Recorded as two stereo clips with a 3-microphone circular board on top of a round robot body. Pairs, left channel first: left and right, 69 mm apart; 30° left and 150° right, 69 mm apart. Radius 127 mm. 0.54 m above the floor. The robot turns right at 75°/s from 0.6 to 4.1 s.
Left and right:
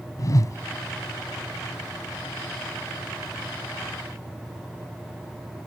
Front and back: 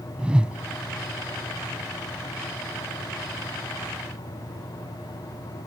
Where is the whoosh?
130° left.